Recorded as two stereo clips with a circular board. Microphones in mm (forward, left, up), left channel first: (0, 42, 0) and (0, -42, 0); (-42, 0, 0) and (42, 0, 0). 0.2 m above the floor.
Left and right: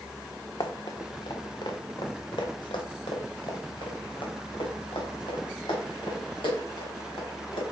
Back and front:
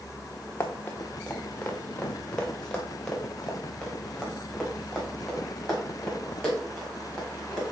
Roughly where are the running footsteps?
Behind left.